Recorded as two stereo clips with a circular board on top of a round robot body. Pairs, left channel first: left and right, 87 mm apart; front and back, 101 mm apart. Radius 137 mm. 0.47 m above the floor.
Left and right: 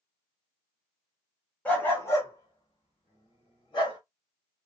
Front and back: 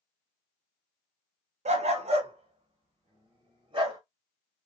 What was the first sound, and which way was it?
A dog barking, 165° left.